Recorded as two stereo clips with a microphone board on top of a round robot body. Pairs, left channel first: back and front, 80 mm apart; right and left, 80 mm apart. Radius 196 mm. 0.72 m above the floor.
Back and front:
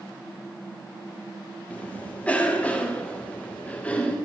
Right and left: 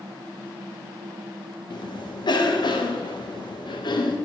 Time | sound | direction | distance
1.7 | a cough | 105° right | 2.0 m